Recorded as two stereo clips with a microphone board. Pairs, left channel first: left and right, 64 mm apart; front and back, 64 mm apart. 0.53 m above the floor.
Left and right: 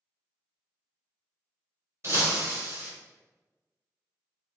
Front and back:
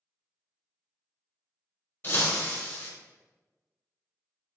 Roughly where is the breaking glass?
Ahead right.